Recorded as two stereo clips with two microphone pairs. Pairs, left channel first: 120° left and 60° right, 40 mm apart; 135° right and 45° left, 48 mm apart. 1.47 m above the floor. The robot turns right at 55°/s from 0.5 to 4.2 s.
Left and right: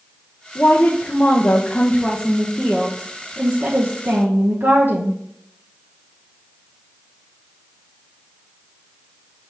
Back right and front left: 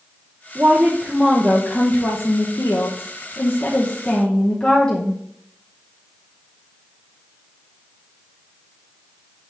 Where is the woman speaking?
95° left, 1.0 m; by 5.2 s 65° right, 1.0 m.